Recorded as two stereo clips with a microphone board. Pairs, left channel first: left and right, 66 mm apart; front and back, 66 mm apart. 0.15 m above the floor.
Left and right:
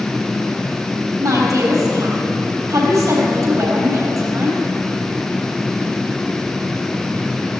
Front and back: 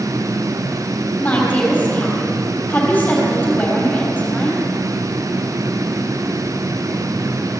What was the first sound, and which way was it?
A woman speaking, 60° right.